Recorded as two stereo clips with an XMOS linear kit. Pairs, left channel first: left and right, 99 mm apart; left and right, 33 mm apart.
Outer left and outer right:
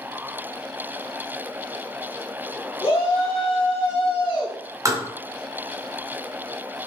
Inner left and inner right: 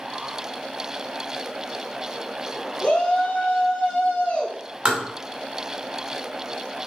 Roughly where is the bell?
I don't hear a bell.